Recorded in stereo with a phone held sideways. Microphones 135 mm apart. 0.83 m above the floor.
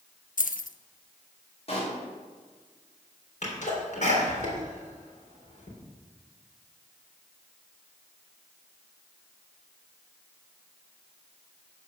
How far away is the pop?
About 3 m.